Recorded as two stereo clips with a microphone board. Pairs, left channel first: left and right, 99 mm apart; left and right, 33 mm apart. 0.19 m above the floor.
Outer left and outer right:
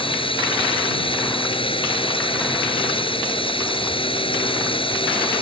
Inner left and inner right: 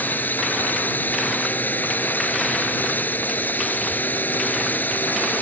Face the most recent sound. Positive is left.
turn(degrees=65)  # may be behind; listen again after turning